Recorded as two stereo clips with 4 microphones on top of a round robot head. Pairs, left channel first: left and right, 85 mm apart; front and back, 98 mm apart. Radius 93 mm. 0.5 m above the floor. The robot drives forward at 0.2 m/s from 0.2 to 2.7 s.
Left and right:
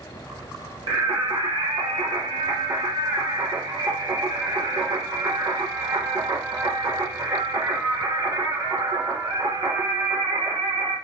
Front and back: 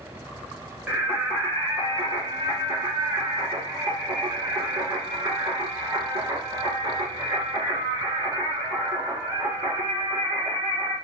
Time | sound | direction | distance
0.9 | singing | 105° right | 1.2 m